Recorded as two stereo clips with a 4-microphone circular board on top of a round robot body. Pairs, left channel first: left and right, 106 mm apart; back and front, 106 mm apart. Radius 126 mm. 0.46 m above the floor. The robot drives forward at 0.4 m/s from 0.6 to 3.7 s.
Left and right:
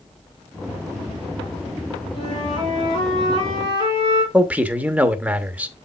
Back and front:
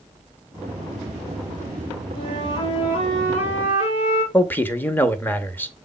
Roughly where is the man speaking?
Behind right.